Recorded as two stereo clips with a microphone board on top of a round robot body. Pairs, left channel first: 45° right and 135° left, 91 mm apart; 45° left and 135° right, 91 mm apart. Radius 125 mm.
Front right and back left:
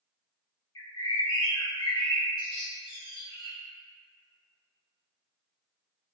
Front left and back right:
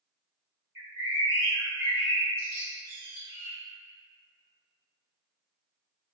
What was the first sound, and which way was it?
A bird, 70° right.